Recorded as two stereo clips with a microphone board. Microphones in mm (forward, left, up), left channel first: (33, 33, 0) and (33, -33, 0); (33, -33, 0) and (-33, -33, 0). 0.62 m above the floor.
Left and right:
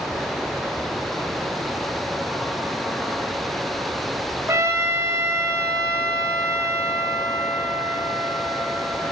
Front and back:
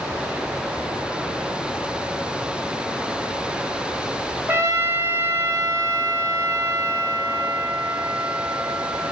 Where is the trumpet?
130° right, 1.7 m.